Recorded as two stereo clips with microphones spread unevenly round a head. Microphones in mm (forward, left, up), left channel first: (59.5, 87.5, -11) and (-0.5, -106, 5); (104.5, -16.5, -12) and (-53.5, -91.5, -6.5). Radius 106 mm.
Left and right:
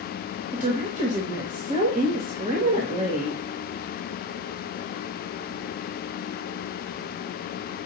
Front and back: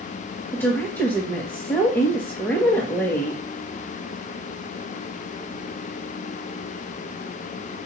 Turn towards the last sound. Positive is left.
turn(degrees=-55)